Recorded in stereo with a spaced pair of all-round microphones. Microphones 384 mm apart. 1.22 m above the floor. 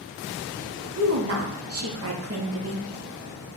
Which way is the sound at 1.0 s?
40° right (ahead or behind).